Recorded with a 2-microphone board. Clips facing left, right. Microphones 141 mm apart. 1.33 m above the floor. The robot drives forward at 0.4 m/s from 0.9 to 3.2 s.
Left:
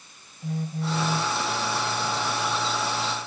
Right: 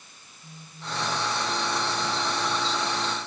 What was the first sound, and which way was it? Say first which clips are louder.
A phone buzzing: left 13 dB; 70° left (ahead or behind).